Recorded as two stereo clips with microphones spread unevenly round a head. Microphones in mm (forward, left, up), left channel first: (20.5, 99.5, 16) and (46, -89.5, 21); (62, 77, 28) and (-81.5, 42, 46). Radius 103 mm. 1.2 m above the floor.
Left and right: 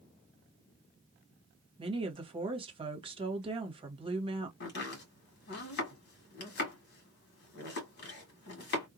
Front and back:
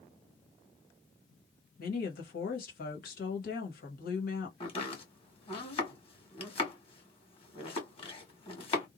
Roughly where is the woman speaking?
Ahead.